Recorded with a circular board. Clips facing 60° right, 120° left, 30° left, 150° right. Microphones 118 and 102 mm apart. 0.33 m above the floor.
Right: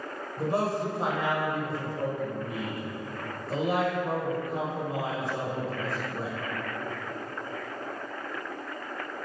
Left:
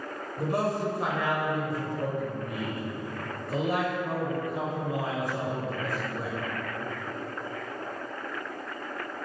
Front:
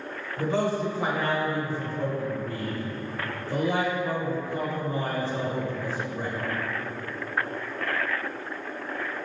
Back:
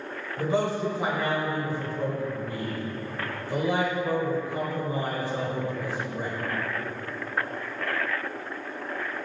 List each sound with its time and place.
0.4 s a man speaking: 90° right, 1.1 m